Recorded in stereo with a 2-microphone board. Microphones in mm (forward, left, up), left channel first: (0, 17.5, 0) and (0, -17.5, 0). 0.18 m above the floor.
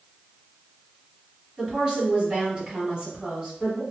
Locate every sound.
1.6 s a woman speaking: 30° right (ahead or behind), 1.6 m